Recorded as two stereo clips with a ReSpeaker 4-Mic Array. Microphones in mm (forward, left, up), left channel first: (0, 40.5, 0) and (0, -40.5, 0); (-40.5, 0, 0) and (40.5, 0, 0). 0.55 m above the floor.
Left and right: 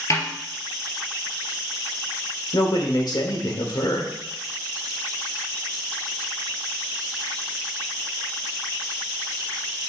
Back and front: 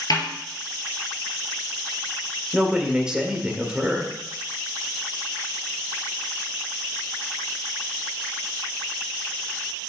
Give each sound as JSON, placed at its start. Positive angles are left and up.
{"t": 0.1, "sound": "a snare drum", "azimuth_deg": 140, "distance_m": 2.0}
{"t": 2.5, "sound": "a man speaking", "azimuth_deg": 80, "distance_m": 1.5}